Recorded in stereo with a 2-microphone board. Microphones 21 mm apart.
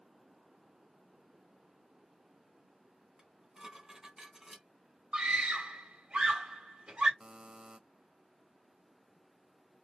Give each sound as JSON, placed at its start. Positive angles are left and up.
{"t": 3.2, "sound": "dishes clattering", "side_deg": -25, "distance_m": 2.0}
{"t": 5.1, "sound": "a scream", "side_deg": -55, "distance_m": 2.5}
{"t": 7.2, "sound": "a buzzer", "side_deg": -40, "distance_m": 0.6}